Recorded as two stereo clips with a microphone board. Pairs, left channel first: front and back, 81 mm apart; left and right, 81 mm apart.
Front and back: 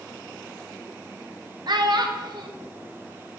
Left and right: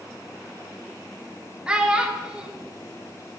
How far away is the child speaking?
About 0.9 m.